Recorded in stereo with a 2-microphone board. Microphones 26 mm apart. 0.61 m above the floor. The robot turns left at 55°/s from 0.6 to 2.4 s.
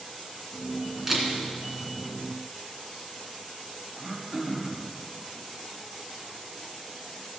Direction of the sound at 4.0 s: 10° right (ahead or behind).